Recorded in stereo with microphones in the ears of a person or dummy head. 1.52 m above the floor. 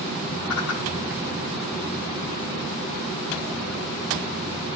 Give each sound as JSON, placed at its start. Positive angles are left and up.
{"t": 0.5, "sound": "a whoosh", "side_deg": 80, "distance_m": 7.0}